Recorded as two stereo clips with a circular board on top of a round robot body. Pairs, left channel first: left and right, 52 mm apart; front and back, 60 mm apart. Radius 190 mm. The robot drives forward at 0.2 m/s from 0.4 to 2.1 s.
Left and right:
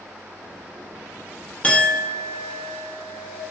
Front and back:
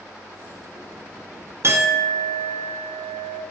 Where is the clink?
150° left, 0.6 m; by 3.4 s 155° left, 0.7 m.